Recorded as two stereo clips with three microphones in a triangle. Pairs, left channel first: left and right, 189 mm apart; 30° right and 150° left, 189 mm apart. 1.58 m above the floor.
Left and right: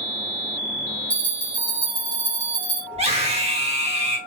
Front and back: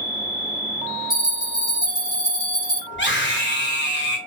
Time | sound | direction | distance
1.1 | a bell | 5° left | 1.0 m
2.9 | a scream | 35° right | 1.3 m